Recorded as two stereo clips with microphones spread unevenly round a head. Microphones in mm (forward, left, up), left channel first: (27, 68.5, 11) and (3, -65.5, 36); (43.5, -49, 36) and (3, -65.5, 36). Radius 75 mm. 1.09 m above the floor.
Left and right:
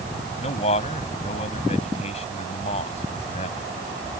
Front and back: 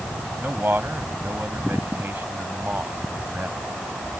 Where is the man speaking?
130° left.